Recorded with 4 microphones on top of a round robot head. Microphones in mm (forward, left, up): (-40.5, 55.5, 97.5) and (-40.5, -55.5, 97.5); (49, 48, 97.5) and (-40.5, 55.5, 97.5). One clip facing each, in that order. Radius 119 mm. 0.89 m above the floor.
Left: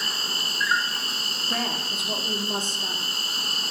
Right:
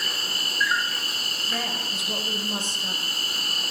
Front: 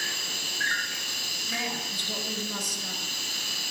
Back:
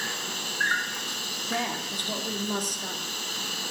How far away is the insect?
About 1.8 m.